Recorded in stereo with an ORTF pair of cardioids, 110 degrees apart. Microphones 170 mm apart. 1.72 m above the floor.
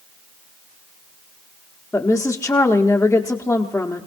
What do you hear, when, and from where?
1.9 s a woman speaking: 10° left, 1.0 m